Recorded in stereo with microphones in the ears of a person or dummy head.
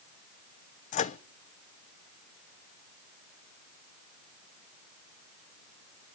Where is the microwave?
40° left (ahead or behind), 0.7 m.